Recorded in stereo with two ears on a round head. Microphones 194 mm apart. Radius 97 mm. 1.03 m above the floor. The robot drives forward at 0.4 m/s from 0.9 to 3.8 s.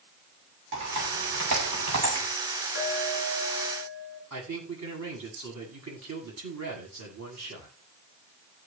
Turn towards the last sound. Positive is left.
turn(degrees=-80)